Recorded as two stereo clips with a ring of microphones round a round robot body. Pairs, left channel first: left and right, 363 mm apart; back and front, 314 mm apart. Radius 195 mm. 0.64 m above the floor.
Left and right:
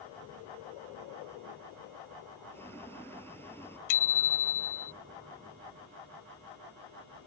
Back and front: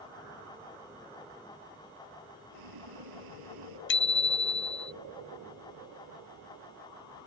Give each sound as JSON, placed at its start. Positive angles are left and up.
{"t": 2.5, "sound": "boiling", "azimuth_deg": 5}
{"t": 3.9, "sound": "a bicycle bell", "azimuth_deg": 125}